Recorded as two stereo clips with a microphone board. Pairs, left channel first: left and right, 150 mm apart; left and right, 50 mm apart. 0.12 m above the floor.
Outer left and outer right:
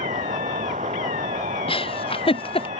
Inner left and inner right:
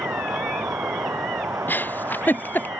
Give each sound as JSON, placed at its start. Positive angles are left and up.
{"t": 0.0, "sound": "an insect", "side_deg": -60}
{"t": 1.7, "sound": "a giggle", "side_deg": 40}